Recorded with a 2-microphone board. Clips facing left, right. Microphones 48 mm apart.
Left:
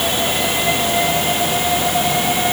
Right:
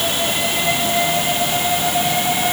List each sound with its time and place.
Only background noise.